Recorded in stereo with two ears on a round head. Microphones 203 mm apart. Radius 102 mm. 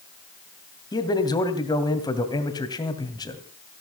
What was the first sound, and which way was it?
A man speaking, 20° left (ahead or behind).